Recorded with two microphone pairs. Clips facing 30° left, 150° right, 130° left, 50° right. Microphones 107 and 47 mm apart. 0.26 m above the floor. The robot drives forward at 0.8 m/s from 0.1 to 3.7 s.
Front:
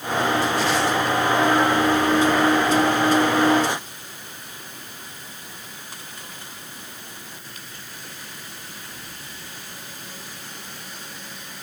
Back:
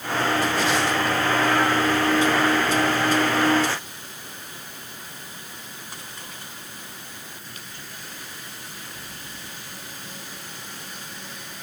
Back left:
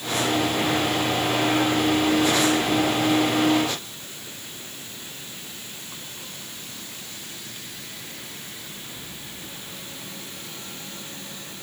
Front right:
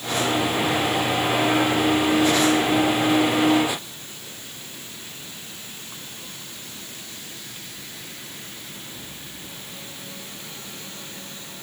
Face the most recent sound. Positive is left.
No sound to turn to.